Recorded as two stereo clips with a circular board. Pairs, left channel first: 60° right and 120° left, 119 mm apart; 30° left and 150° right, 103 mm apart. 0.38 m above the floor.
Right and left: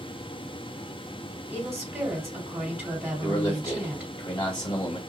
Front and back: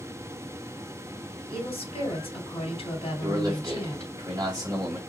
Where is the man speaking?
105° right, 2 m.